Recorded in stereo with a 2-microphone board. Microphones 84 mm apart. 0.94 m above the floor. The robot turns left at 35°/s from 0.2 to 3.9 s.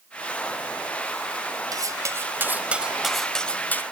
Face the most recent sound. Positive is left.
turn(degrees=155)